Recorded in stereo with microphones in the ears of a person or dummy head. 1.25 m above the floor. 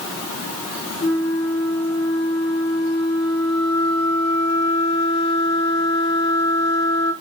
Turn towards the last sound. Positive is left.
turn(degrees=65)  # may be behind; listen again after turning